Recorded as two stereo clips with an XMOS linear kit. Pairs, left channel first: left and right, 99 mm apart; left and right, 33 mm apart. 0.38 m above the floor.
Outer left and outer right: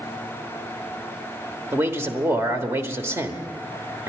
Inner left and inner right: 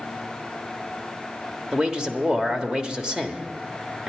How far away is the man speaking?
About 1.2 m.